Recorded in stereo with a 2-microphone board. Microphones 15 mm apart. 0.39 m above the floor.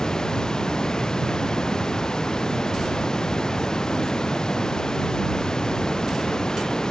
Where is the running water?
50° left (ahead or behind).